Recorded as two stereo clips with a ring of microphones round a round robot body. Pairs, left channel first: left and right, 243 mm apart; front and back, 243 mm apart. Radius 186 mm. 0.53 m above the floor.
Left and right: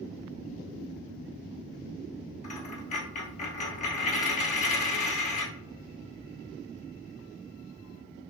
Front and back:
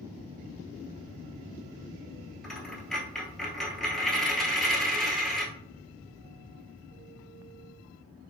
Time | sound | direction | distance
2.4 | a dropped coin | 85° left | 0.5 m